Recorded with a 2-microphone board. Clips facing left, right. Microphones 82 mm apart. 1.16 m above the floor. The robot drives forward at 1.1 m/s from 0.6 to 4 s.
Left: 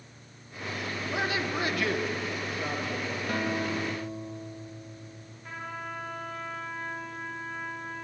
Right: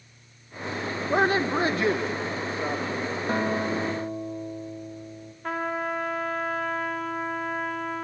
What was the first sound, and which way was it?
A man speaking, 45° right (ahead or behind).